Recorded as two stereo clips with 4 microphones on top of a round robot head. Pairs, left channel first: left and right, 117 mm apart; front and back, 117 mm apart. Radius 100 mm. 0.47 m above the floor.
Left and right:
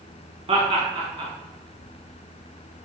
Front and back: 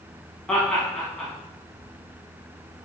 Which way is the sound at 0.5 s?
70° right.